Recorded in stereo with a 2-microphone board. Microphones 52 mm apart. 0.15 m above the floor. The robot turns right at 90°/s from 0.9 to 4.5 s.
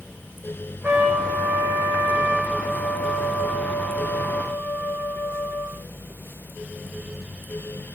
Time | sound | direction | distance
0.8 | a trumpet | 160° right | 1.3 m